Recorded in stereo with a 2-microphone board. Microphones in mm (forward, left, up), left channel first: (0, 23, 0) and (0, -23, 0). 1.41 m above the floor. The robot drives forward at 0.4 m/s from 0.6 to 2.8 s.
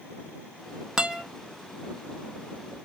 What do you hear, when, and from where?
1.0 s a guitar: 15° right (ahead or behind), 0.9 m